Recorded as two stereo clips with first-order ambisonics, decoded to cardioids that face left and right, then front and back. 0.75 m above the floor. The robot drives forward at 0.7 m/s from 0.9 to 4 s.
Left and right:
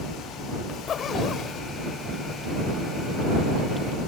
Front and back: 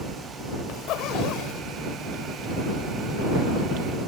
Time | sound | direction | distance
0.7 | a zipper | 35° left | ?